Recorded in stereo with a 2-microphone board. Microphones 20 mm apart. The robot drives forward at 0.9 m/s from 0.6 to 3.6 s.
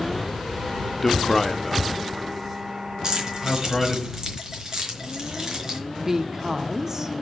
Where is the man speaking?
10° left (ahead or behind), 0.9 m; by 4.0 s 5° left (ahead or behind), 3 m.